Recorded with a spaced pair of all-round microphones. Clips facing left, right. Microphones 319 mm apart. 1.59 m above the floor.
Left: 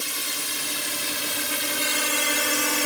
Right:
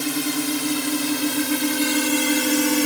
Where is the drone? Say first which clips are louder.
Right 16 dB; 70° right (ahead or behind); by 2.9 s 50° right (ahead or behind).